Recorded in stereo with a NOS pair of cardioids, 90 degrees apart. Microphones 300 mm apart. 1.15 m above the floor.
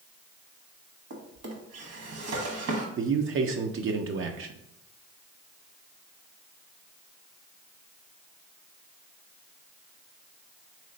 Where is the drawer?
55° right, 1.3 m.